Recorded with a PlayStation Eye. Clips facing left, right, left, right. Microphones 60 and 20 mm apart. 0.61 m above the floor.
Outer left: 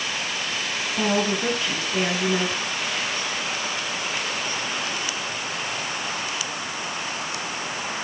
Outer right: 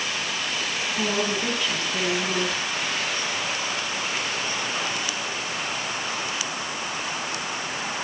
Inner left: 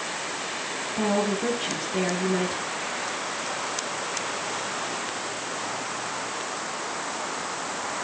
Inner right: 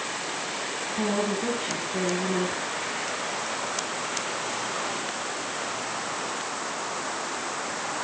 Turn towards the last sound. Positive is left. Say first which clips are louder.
# outer left 4 dB, inner left 2 dB
turn(degrees=20)  # may be behind; listen again after turning